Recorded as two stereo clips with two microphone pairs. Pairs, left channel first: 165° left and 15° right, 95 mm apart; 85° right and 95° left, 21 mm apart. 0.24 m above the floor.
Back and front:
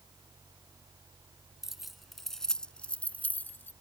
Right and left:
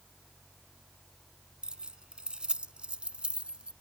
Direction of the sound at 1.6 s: 70° left.